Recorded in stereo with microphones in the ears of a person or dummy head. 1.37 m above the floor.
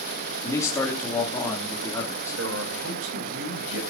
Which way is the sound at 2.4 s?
70° right (ahead or behind).